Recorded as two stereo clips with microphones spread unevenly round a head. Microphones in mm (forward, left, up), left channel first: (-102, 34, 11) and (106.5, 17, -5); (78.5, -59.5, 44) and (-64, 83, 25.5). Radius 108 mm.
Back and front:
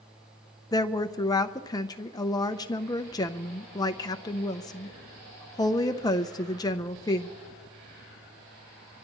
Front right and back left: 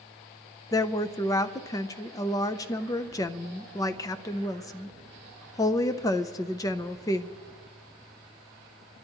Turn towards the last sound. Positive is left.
turn(degrees=-115)